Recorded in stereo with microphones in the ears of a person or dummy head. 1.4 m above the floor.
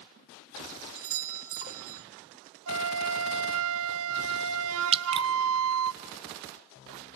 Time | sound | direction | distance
0.9 | a doorbell | 65° right (ahead or behind) | 1.3 m
2.7 | a flute | 70° right (ahead or behind) | 0.7 m
4.9 | dripping | 25° right (ahead or behind) | 0.8 m